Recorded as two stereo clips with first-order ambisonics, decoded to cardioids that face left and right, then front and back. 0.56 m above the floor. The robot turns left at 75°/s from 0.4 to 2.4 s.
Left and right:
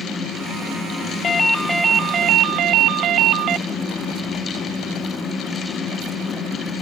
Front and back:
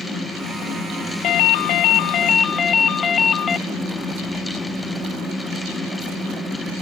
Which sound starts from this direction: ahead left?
A ringtone, at 1.2 s.